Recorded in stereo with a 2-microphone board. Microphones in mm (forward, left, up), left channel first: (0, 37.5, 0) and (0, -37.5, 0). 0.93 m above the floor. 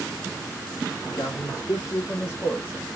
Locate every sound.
1.1 s a man speaking: 55° left (ahead or behind), 1.4 m; by 2.9 s 10° left (ahead or behind), 1.1 m